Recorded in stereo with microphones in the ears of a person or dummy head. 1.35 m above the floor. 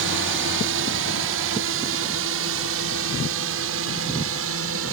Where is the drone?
65° right (ahead or behind); by 4.9 s 70° right (ahead or behind).